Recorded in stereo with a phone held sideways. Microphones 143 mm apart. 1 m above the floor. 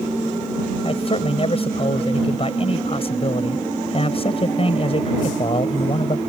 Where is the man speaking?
45° left (ahead or behind).